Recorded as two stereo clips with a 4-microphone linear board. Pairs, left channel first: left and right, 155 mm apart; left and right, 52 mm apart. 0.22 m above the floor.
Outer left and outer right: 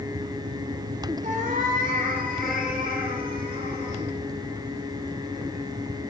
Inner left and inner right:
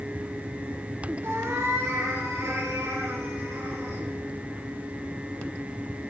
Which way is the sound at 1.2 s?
60° right (ahead or behind).